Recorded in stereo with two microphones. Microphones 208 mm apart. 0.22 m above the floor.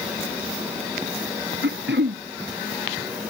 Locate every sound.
1.6 s throat clearing: 60° right (ahead or behind)